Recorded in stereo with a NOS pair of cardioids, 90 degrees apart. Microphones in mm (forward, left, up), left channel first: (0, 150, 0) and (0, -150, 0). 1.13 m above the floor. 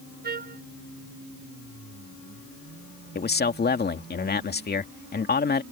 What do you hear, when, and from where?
0.2 s a trumpet: 35° right
3.1 s a man speaking: 35° left